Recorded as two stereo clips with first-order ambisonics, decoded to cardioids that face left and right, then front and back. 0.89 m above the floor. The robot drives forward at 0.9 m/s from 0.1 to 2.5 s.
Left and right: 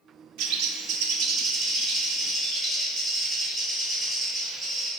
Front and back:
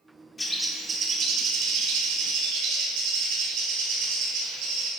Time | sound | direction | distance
0.4 | a bird | 75° right | 0.7 m